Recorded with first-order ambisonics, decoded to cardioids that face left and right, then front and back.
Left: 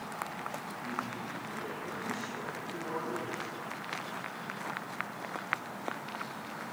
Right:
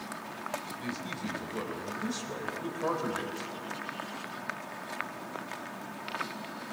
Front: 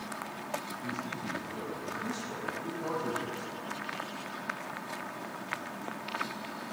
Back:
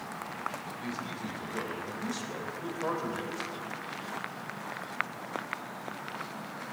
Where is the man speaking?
115° right, 3 m.